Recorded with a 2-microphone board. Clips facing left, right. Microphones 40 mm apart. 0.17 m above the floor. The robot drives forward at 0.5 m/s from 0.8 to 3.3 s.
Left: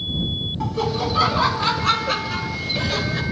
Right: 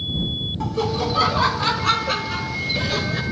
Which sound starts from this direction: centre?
Laughter, at 0.6 s.